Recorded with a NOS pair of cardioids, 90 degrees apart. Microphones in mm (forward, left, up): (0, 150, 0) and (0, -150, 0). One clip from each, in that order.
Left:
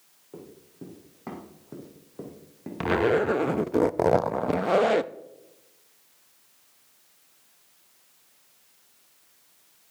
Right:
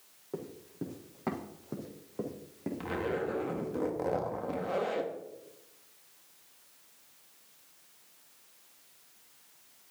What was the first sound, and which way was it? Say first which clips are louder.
Running footsteps: right 4 dB; 40° right.